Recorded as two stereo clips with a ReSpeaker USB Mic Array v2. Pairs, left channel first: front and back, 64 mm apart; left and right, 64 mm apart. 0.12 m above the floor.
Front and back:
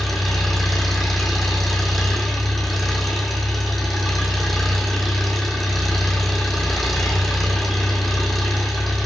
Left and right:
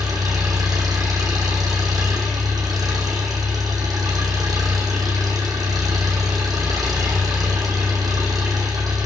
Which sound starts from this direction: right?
An engine running, at 0.0 s.